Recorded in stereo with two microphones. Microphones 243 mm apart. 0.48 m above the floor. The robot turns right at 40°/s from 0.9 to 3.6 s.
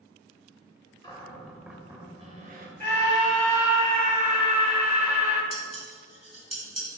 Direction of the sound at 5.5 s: 80° right.